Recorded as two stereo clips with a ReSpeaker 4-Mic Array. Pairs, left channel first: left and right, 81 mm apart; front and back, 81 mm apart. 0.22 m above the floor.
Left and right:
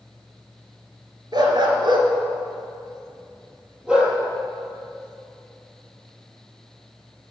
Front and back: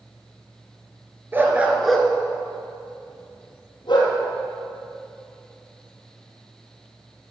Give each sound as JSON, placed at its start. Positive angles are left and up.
{"t": 1.3, "sound": "a dog barking", "azimuth_deg": -120, "distance_m": 1.4}